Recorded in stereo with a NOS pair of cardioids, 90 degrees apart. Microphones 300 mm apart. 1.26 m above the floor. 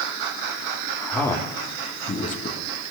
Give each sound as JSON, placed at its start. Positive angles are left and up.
{"t": 1.0, "sound": "a man speaking", "azimuth_deg": 5, "distance_m": 3.5}